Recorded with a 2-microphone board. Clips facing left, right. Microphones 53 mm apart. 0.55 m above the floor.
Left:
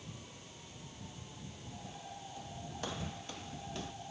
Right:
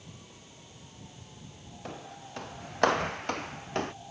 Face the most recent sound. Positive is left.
turn(degrees=-55)  # may be behind; listen again after turning